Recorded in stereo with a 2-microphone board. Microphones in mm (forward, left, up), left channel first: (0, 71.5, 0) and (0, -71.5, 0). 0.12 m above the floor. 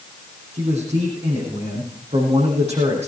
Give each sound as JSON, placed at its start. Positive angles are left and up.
{"t": 0.5, "sound": "a man speaking", "side_deg": -50, "distance_m": 6.5}